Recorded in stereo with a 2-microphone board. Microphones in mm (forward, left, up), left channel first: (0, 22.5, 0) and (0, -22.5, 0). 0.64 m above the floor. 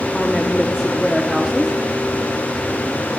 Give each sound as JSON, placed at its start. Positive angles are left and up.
{"t": 0.1, "sound": "a woman speaking", "side_deg": 0, "distance_m": 1.1}